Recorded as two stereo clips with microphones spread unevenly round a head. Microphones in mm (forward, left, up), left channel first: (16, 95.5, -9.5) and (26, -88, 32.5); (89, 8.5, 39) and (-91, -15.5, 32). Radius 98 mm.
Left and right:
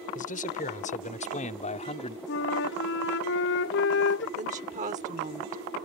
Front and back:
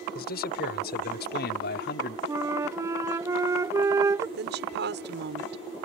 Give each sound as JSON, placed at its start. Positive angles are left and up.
{"t": 0.1, "sound": "a man speaking", "azimuth_deg": 45}
{"t": 2.3, "sound": "a flute", "azimuth_deg": 115}
{"t": 4.4, "sound": "a woman speaking", "azimuth_deg": -145}